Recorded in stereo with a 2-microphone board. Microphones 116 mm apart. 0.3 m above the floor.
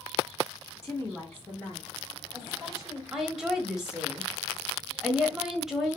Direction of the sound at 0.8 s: 25° left (ahead or behind).